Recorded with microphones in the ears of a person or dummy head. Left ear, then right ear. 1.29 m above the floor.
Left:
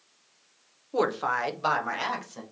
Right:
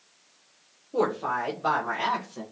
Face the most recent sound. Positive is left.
turn(degrees=80)